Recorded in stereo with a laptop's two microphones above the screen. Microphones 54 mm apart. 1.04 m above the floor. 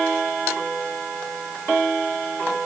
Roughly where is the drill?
No drill in this recording.